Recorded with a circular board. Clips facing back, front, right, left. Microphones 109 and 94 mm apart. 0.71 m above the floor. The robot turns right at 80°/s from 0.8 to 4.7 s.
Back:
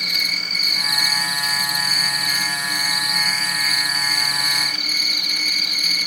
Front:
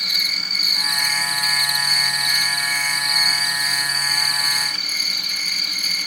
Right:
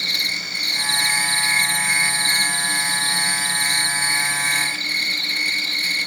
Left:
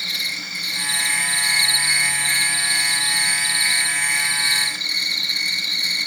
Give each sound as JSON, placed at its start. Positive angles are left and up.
{"t": 0.0, "sound": "an insect", "azimuth_deg": 85, "distance_m": 1.1}